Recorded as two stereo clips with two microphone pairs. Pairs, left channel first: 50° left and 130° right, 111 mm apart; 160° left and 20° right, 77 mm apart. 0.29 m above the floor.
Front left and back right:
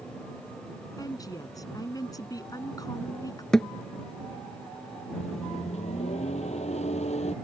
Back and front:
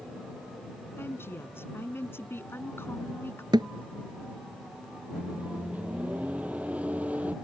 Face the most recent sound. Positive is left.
turn(degrees=50)